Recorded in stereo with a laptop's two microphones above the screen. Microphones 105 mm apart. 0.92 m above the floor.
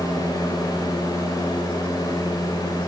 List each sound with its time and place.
0.0 s a fan: 35° left (ahead or behind), 5 m